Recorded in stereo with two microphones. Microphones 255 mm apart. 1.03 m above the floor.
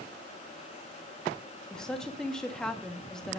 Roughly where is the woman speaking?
Centre.